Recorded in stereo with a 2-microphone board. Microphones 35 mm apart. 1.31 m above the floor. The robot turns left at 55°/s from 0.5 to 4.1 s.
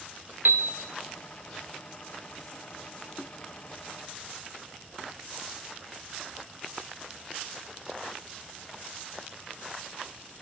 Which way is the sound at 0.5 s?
75° right (ahead or behind).